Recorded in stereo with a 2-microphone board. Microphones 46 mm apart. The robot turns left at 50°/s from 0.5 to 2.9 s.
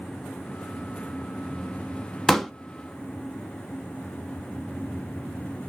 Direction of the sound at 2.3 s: 10° left (ahead or behind).